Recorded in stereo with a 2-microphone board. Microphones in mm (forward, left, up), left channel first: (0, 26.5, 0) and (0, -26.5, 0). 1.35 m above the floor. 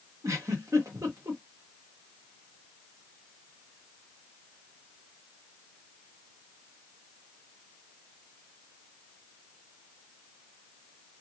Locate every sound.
0.2 s a giggle: 80° right, 1.2 m